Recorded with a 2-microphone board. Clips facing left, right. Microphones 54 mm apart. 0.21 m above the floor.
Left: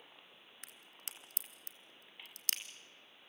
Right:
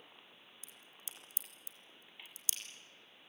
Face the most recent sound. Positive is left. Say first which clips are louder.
# left 4 dB
turn(degrees=65)  # may be behind; listen again after turning